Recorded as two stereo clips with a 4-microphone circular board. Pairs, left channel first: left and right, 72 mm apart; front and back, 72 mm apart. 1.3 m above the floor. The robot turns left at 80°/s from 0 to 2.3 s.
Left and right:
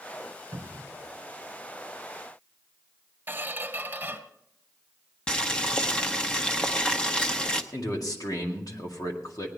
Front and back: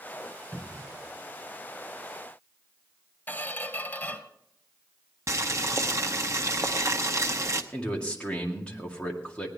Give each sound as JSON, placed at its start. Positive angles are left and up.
{"t": 0.5, "sound": "a cupboard door", "azimuth_deg": -85, "distance_m": 3.0}
{"t": 3.3, "sound": "a squeak", "azimuth_deg": -45, "distance_m": 1.3}
{"t": 5.3, "sound": "boiling", "azimuth_deg": 160, "distance_m": 0.9}
{"t": 7.7, "sound": "a man speaking", "azimuth_deg": 75, "distance_m": 2.0}